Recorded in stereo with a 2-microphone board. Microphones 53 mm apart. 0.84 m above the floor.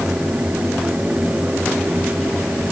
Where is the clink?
No clink in this recording.